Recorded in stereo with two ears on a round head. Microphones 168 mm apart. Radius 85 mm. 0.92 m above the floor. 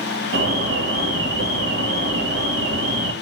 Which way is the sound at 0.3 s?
60° right (ahead or behind).